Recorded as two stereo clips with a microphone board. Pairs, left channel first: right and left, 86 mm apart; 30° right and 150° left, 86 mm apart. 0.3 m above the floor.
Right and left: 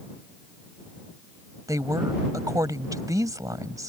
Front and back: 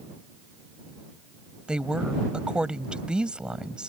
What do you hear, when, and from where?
1.7 s a woman speaking: 75° left